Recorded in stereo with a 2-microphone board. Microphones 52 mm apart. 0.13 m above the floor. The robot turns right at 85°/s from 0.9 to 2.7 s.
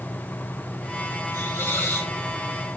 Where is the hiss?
65° left, 6 m; by 2.1 s 130° left, 6 m.